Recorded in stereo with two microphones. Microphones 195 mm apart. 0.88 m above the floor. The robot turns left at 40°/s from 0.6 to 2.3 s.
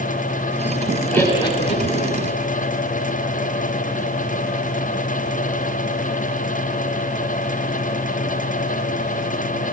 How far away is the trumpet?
I don't hear a trumpet.